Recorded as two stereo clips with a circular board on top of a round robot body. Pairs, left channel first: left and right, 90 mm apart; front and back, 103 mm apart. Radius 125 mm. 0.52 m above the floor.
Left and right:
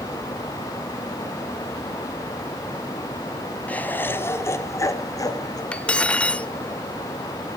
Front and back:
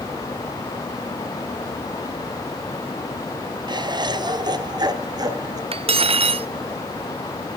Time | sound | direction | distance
3.7 | laughter | 160° left | 1.2 m
5.7 | cutlery clinking | 165° left | 0.7 m